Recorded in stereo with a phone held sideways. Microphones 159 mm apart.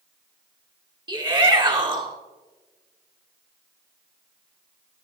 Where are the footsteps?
I don't hear footsteps.